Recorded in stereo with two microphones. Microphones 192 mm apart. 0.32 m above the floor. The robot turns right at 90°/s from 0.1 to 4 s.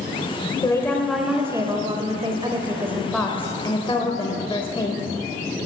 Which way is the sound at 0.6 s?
20° left (ahead or behind).